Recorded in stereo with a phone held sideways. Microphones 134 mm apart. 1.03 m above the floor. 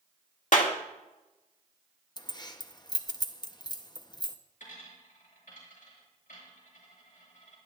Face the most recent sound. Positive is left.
turn(degrees=85)